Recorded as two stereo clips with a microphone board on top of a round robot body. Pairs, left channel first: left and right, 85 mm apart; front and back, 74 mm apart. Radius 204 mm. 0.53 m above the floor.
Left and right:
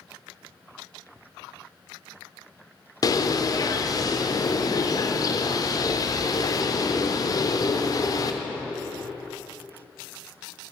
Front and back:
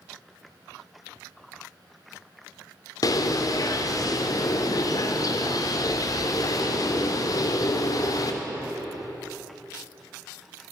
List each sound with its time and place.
3.0 s a bird: 40° left, 0.8 m